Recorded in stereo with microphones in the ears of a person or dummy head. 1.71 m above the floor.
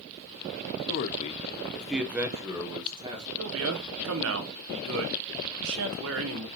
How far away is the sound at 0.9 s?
About 0.7 m.